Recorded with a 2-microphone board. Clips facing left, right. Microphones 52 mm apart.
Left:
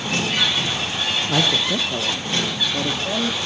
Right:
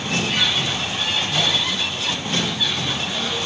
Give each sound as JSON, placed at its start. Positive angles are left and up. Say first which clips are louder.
{"t": 1.3, "sound": "a man speaking", "louder": "left 2 dB", "side_deg": 85, "distance_m": 1.0}